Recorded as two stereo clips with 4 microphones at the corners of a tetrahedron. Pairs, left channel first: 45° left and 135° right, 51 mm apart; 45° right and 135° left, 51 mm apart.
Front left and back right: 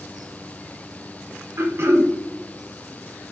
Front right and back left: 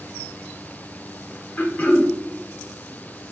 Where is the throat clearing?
105° right, 0.6 m.